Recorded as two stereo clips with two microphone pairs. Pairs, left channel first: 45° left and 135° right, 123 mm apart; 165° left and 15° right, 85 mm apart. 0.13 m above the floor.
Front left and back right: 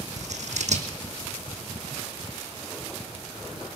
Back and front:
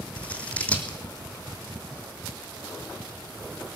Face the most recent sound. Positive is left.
turn(degrees=-120)